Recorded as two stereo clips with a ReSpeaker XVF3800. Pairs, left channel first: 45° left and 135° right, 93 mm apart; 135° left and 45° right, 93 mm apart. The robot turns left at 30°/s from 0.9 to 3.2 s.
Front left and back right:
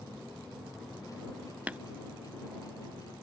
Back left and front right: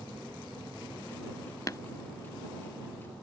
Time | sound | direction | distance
1.7 | tapping | 160° left | ?